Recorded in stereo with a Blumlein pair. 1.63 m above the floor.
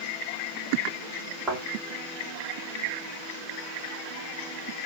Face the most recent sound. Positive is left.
turn(degrees=-15)